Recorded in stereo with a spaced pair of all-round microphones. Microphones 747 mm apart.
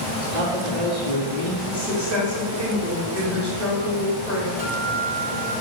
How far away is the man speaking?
About 2.5 m.